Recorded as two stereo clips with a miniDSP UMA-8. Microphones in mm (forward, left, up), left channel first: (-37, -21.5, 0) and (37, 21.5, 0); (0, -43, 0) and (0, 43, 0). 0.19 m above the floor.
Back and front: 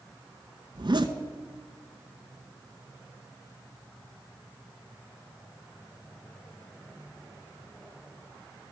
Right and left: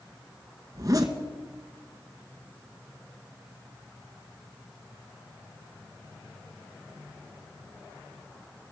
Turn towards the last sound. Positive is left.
turn(degrees=50)